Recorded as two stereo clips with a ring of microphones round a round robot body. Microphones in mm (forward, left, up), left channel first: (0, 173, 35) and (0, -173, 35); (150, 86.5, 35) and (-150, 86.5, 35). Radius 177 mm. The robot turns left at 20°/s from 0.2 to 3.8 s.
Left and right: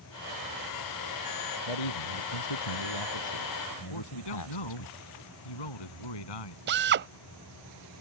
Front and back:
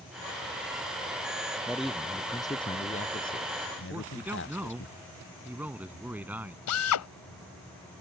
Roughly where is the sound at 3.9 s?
Left.